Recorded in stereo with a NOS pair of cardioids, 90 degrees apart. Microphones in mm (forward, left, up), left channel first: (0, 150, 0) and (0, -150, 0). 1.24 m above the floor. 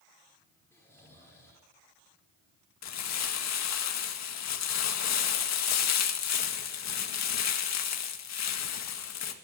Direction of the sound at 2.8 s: 65° left.